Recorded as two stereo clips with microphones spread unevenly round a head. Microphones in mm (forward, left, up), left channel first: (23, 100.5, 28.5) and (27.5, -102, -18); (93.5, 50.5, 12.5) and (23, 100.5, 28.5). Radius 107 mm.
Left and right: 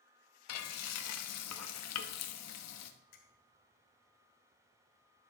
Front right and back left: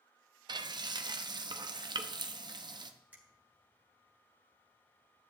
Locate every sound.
0.5 s frying: 105° left, 0.8 m
3.1 s a finger snap: 75° left, 3 m